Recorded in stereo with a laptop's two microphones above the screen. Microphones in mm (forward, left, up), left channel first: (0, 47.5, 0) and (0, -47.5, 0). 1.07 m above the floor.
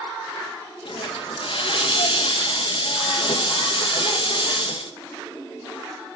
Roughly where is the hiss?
Left.